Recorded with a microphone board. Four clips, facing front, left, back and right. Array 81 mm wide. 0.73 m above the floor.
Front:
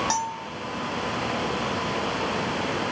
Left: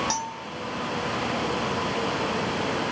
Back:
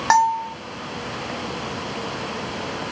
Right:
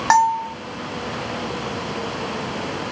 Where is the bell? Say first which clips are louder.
Right 15 dB, back 11 dB; 130° right.